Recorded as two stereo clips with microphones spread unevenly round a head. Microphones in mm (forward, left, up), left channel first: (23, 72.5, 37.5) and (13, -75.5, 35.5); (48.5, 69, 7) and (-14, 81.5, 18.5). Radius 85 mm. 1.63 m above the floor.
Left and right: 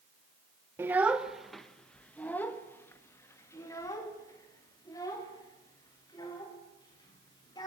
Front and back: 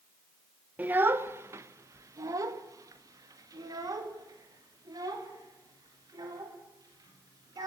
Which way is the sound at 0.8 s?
165° right.